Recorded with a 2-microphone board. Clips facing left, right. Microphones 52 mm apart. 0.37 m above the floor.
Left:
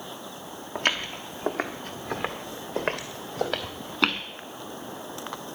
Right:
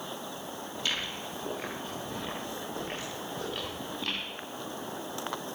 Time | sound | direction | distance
0.8 | footsteps | 50° left (ahead or behind) | 3 m